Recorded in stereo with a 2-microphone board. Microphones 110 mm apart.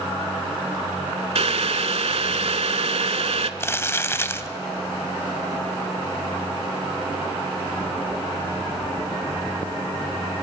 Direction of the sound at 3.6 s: 20° left (ahead or behind).